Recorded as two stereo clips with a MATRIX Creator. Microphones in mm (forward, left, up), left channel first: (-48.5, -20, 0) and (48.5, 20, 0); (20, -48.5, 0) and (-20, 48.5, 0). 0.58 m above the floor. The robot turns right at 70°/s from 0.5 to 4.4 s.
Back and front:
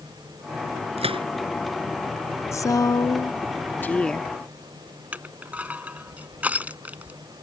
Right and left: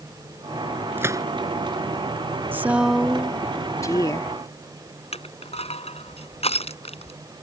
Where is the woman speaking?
170° left; by 4.3 s 65° right.